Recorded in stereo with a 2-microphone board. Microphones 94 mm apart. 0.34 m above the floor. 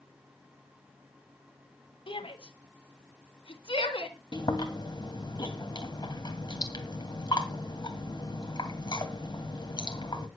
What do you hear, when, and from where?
2.1 s a shout: 65° left (ahead or behind), 2.5 m
4.3 s chewing: 50° left (ahead or behind), 2.5 m